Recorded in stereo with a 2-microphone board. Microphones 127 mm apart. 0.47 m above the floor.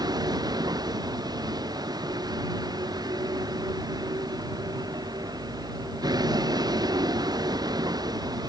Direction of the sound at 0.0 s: 30° right (ahead or behind).